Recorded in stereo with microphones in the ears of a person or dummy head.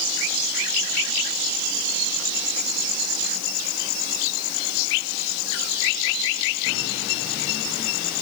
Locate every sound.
Only background noise.